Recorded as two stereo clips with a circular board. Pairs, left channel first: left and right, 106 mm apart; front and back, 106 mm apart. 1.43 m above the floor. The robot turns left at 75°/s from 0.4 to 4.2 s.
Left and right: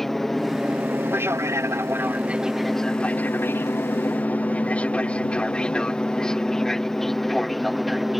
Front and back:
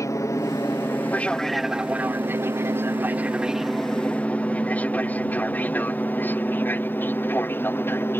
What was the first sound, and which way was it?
An aircraft, 5° left.